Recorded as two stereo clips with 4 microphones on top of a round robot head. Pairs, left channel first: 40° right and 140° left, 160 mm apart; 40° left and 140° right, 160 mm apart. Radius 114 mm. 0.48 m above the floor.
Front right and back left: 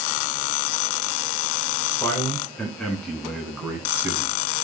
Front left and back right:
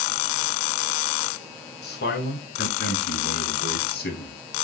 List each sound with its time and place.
1.8 s a man speaking: 35° left, 7 m; by 4.3 s 65° left, 4.5 m